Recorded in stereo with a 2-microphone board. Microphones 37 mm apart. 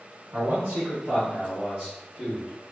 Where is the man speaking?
70° right (ahead or behind), 0.8 m; by 2.7 s 20° right (ahead or behind), 1.6 m.